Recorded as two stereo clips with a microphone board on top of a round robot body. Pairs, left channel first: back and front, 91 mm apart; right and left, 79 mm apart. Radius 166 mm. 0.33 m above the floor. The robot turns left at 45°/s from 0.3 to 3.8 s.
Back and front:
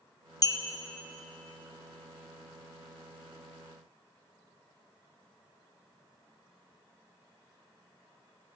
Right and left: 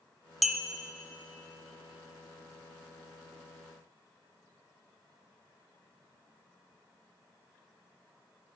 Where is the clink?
Straight behind, 0.6 m; by 0.6 s 170° left, 0.6 m.